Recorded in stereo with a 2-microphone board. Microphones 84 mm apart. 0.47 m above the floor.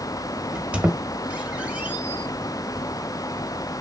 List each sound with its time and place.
0.5 s a squeak: 15° right (ahead or behind), 0.6 m